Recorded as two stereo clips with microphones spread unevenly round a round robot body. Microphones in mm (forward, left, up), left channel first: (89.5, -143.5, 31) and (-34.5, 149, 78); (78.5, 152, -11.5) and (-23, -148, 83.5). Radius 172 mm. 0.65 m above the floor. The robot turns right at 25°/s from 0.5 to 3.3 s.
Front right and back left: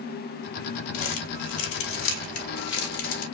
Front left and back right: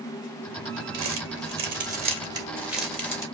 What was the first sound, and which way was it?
Crumpling, 60° right.